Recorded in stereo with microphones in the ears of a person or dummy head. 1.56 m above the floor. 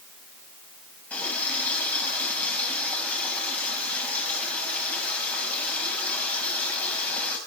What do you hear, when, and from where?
1.1 s a running tap: 10° left (ahead or behind), 7 m